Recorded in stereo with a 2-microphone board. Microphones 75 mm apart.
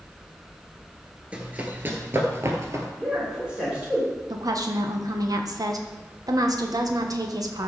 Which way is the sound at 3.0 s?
15° right (ahead or behind).